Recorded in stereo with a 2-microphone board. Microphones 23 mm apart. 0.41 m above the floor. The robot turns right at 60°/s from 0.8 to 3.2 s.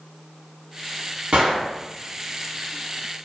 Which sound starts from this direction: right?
A gunshot, at 1.3 s.